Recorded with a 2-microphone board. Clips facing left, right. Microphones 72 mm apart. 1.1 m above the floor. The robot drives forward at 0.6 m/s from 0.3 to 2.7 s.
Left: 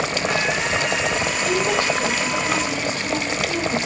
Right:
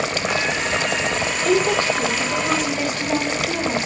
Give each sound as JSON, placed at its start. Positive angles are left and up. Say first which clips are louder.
{"t": 1.4, "sound": "a woman speaking", "louder": "right 4 dB", "side_deg": -45, "distance_m": 3.0}